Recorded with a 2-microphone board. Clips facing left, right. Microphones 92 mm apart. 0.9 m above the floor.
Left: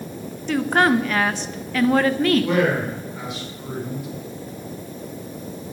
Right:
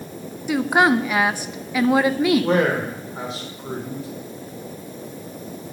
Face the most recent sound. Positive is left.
turn(degrees=-35)  # may be behind; listen again after turning